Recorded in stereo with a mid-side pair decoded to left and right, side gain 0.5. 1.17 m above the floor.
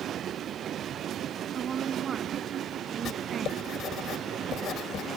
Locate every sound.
1.5 s a woman speaking: 45° right
3.0 s writing: 60° left